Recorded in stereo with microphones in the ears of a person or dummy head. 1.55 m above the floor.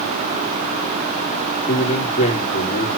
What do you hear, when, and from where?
1.7 s a man speaking: 30° left (ahead or behind), 3 m